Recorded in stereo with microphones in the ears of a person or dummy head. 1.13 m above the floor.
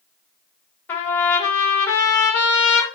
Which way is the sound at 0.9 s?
15° left (ahead or behind).